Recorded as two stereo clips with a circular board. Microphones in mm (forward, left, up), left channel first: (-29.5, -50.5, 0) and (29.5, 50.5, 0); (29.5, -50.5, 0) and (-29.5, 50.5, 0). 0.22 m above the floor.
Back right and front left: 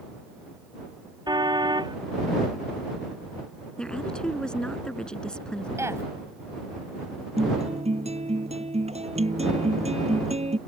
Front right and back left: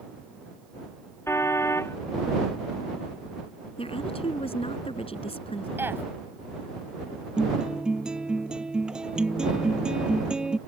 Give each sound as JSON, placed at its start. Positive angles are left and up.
{"t": 1.3, "sound": "a car horn", "azimuth_deg": 10}
{"t": 3.8, "sound": "a woman speaking", "azimuth_deg": -40}
{"t": 5.8, "sound": "a woman speaking", "azimuth_deg": 80}
{"t": 7.4, "sound": "a guitar", "azimuth_deg": 35}